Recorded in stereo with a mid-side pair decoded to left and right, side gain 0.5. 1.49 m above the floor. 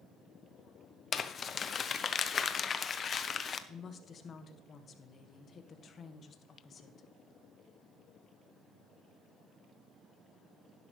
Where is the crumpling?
45° left, 1.0 m.